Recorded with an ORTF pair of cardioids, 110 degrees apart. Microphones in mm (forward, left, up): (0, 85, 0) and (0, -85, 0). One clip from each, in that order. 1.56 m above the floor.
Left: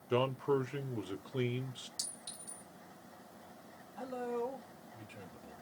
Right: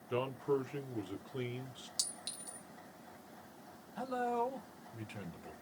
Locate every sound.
0.1 s a man speaking: 25° left, 0.8 m
2.0 s a clink: 65° right, 1.8 m
4.0 s a man speaking: 40° right, 1.3 m